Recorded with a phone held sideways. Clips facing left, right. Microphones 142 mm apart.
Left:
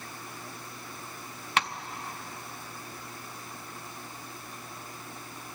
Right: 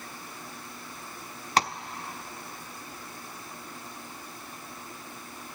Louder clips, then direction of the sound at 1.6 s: Right 4 dB; 40° right (ahead or behind).